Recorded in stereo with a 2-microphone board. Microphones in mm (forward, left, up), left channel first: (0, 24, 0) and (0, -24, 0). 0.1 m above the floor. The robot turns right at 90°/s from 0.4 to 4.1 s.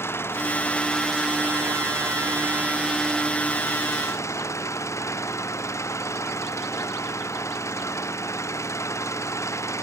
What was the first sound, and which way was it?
An engine running, 120° left.